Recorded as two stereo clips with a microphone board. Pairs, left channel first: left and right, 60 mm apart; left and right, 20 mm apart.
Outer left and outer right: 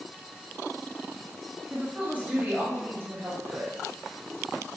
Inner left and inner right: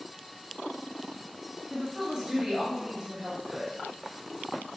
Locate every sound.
1.7 s a woman speaking: 20° right (ahead or behind), 1.3 m; by 3.7 s 40° right (ahead or behind), 1.8 m